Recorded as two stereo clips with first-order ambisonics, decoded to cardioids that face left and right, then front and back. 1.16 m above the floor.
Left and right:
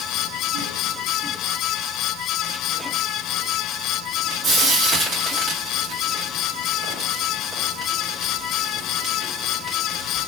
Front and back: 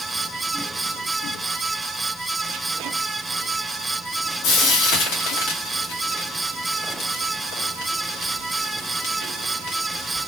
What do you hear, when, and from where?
4.4 s frying: 20° right, 2.5 m